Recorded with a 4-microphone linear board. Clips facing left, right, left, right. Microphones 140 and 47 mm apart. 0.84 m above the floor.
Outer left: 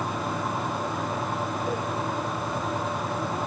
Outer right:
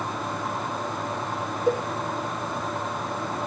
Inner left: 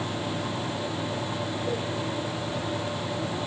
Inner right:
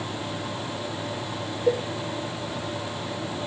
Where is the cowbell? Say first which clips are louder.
Outer right 10 dB, inner right 10 dB; 75° right (ahead or behind), 4 m.